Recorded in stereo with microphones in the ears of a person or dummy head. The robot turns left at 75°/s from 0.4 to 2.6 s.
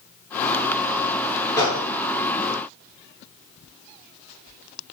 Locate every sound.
1.6 s a gunshot: 20° left (ahead or behind), 0.6 m; by 1.9 s 40° left (ahead or behind), 0.6 m